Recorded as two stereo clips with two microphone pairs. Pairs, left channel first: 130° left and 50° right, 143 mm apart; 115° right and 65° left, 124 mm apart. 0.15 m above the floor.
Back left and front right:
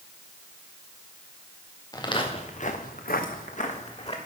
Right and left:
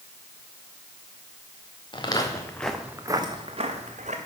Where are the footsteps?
165° right, 1.9 m; by 4.2 s 85° left, 2.5 m.